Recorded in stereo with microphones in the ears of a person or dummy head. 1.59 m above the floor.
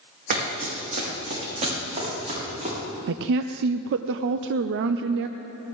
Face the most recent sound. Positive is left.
turn(degrees=-70)  # may be behind; listen again after turning